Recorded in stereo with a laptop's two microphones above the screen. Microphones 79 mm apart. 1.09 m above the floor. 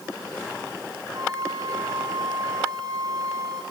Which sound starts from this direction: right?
A flute, at 1.1 s.